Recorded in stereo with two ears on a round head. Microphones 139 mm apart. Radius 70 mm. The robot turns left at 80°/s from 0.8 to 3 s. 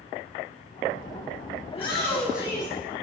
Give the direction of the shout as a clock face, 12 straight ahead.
10 o'clock.